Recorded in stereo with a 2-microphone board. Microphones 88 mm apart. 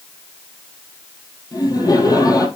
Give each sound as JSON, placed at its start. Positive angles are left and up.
{"t": 1.5, "sound": "laughter", "side_deg": 45, "distance_m": 3.0}